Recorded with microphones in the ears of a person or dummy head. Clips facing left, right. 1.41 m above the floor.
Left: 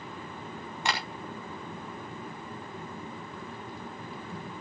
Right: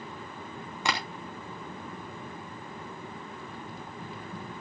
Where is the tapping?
85° right, 3 m.